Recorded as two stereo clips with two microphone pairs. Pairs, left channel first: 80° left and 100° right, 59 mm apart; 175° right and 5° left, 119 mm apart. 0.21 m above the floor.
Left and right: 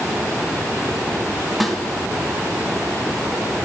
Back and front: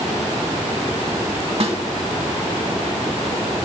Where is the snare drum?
5° right, 1.9 m.